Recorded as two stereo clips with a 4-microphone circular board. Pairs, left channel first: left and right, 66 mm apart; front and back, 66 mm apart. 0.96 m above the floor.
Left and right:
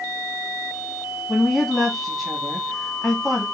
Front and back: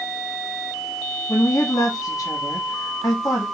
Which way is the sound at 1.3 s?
15° left.